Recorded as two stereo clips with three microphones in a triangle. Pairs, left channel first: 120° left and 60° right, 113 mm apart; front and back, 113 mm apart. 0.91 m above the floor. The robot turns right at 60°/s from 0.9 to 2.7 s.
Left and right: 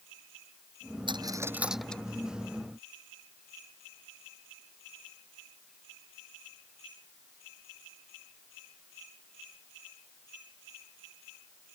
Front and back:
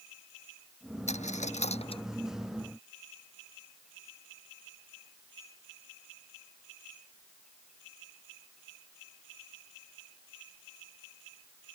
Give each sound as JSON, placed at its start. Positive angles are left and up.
{"t": 1.1, "sound": "a dropped coin", "azimuth_deg": -15}